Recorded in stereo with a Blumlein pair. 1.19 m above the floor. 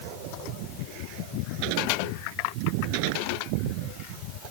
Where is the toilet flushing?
I don't hear a toilet flushing.